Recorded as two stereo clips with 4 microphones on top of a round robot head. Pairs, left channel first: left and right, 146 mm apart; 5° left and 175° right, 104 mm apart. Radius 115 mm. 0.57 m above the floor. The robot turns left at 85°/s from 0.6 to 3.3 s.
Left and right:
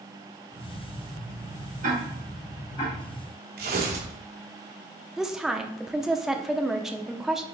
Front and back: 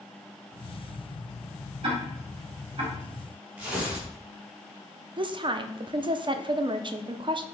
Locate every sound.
1.8 s ticking: 130° right, 4 m; by 3.0 s 135° left, 4 m
3.6 s tearing paper: 95° right, 1.9 m
5.2 s a woman speaking: 175° right, 0.8 m